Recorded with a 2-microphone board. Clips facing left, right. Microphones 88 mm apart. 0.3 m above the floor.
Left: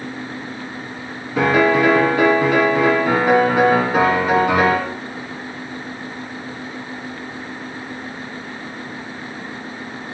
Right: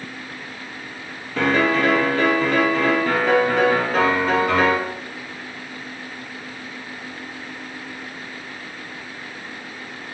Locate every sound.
1.4 s a piano: 10° left (ahead or behind), 4 m